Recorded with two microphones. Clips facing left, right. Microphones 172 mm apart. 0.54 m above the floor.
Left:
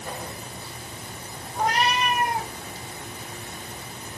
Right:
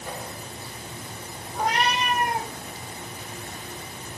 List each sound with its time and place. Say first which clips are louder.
1.6 s a cat meowing: left 1 dB; centre (ahead or behind), 3.5 m